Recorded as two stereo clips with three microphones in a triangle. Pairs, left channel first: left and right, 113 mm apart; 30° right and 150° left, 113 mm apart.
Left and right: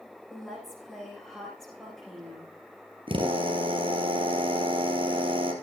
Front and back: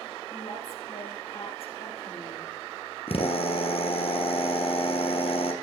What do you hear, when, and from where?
0.3 s a woman speaking: 5° left, 9 m
3.1 s a drill: 55° right, 2.5 m